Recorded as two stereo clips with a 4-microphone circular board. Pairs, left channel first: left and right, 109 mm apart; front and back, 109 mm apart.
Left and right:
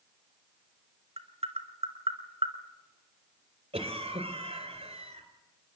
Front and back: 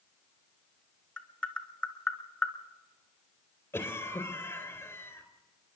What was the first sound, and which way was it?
Tapping, 80° right.